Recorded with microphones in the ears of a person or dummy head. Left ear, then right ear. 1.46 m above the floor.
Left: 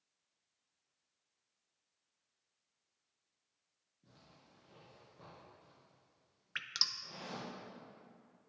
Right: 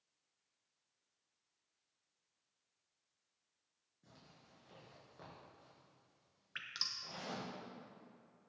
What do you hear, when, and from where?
4.0 s a zipper: 40° right (ahead or behind), 5 m
6.5 s dripping: 20° left (ahead or behind), 0.7 m